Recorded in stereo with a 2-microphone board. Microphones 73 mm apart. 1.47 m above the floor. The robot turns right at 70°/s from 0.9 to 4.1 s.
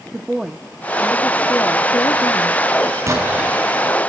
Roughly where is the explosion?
Ahead right.